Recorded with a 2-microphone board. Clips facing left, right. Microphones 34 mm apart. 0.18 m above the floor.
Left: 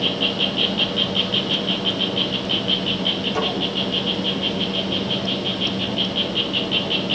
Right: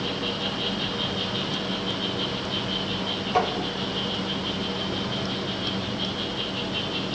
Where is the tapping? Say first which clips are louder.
Right 4 dB; 30° right (ahead or behind), 4 m.